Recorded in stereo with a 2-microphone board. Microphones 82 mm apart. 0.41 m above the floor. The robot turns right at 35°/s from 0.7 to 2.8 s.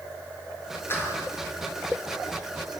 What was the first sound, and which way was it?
A clap, 30° left (ahead or behind).